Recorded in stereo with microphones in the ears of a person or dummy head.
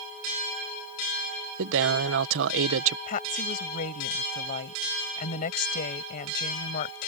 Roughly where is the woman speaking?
Left.